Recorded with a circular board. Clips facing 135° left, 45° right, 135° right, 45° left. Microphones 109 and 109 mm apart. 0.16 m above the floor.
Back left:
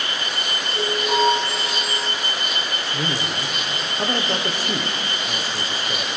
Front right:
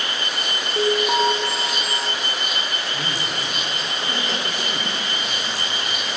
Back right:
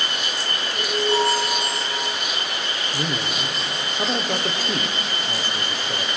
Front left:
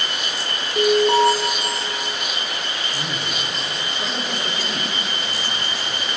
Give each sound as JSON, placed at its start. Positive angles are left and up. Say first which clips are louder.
{"t": 0.8, "sound": "an alarm", "louder": "front right 2 dB, front left 7 dB", "azimuth_deg": 15, "distance_m": 8.5}
{"t": 2.9, "sound": "a man speaking", "louder": "back left 2 dB, back right 2 dB", "azimuth_deg": -175, "distance_m": 3.5}